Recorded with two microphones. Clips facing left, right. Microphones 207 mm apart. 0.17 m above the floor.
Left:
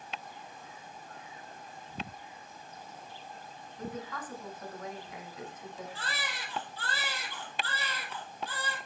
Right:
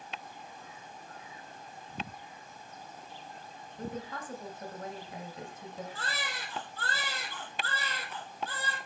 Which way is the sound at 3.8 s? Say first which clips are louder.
Right 1 dB; 30° right (ahead or behind).